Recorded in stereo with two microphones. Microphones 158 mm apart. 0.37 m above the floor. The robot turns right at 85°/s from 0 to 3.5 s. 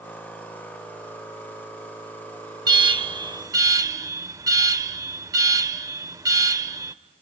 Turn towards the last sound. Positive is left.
turn(degrees=-45)